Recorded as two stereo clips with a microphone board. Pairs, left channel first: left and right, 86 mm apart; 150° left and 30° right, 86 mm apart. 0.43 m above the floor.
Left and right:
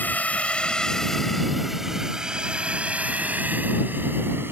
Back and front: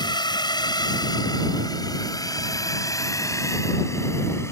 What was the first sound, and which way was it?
A drone, 155° left.